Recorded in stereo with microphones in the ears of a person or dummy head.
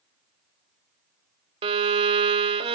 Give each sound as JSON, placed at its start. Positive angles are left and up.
{"t": 1.6, "sound": "a violin", "side_deg": -25, "distance_m": 0.7}